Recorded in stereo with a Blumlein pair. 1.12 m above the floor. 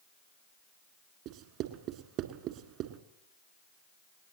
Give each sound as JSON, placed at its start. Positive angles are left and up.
{"t": 1.2, "sound": "writing", "azimuth_deg": -40, "distance_m": 1.9}